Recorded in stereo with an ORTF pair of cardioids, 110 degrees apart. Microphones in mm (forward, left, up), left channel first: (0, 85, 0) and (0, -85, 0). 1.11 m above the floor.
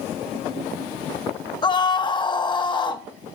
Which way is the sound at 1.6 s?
25° left.